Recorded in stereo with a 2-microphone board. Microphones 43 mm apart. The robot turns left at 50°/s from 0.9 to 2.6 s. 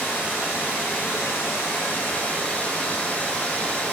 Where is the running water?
115° left, 1.0 m; by 3.9 s 30° left, 1.0 m.